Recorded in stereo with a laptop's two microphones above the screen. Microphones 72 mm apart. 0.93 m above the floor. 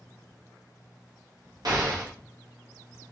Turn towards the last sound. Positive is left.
turn(degrees=-65)  # may be behind; listen again after turning